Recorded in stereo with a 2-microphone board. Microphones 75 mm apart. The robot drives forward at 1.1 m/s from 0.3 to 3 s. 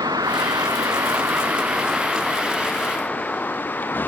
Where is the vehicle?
55° right (ahead or behind); by 4.1 s 25° left (ahead or behind).